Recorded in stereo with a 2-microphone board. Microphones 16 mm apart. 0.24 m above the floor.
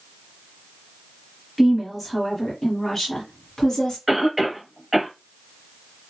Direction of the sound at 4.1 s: 20° right (ahead or behind).